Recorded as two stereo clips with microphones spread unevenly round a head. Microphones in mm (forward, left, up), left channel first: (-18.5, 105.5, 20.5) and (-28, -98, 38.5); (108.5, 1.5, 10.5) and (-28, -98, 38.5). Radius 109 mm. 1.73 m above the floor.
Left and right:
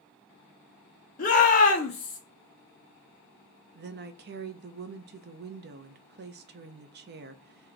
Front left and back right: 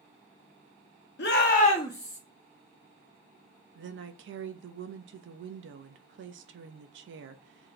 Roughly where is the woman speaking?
Behind right.